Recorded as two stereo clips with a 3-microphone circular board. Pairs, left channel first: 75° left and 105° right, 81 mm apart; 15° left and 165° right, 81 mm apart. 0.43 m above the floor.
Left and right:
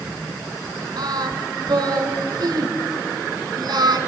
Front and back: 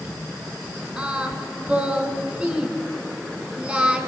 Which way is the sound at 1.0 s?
85° right.